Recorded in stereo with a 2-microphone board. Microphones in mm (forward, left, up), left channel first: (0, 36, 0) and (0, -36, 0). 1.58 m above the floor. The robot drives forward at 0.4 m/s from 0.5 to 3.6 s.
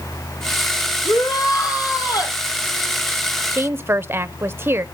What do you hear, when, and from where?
1.1 s a shout: 65° left (ahead or behind), 4 m; by 2.4 s 60° left (ahead or behind), 4.5 m
3.5 s a woman speaking: 35° right (ahead or behind), 0.5 m